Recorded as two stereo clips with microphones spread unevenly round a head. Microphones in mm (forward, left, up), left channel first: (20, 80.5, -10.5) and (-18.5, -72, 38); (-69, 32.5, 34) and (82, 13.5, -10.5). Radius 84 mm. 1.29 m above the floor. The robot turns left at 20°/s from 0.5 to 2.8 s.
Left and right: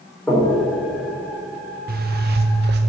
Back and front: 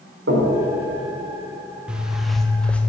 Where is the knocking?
10° right, 4 m.